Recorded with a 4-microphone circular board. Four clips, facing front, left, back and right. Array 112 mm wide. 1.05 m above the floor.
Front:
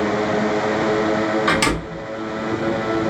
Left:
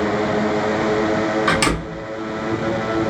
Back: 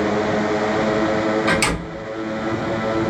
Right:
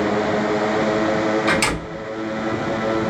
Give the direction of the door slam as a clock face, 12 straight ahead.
10 o'clock.